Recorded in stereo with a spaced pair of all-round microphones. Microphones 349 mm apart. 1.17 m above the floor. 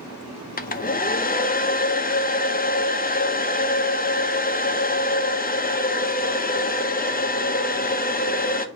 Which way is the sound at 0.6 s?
25° left (ahead or behind).